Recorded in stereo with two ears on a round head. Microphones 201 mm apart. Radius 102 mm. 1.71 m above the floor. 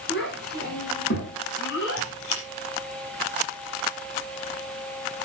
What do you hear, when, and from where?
0.1 s a child speaking: 45° left (ahead or behind), 10 m; by 2.1 s 50° left (ahead or behind), 9.5 m
2.0 s a squeak: 70° left (ahead or behind), 5.5 m